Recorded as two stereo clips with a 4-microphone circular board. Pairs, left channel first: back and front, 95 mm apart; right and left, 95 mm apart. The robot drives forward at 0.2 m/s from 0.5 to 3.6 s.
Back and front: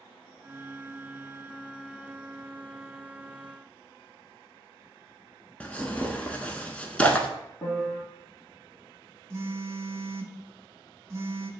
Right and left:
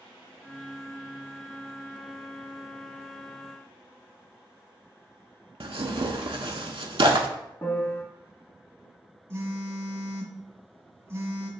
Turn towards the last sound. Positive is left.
turn(degrees=40)